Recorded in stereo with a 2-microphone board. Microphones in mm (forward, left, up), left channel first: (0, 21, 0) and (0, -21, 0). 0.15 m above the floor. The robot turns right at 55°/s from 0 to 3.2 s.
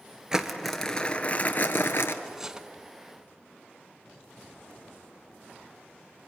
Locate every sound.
0.3 s crumpling: 15° right, 1.3 m; by 2.1 s 85° left, 1.3 m
2.2 s cutlery clinking: 5° right (ahead or behind), 0.7 m; by 2.7 s 15° right (ahead or behind), 0.7 m